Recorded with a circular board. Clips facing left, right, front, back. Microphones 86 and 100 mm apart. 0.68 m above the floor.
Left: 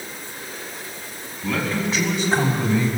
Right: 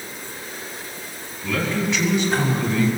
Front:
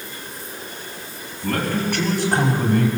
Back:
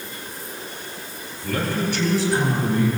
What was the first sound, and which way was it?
A man speaking, 45° left.